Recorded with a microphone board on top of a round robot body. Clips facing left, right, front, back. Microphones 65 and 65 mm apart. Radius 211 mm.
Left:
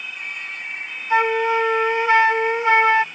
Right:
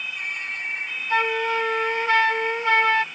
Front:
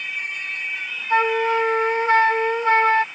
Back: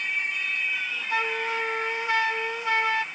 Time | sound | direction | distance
1.1 | a flute | 25° left | ?